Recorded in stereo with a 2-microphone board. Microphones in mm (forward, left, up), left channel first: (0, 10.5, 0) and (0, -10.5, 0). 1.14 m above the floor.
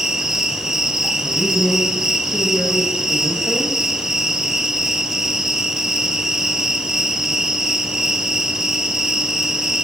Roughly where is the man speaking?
Left.